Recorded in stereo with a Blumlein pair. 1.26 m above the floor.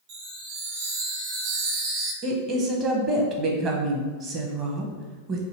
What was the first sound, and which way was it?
A chime, 50° right.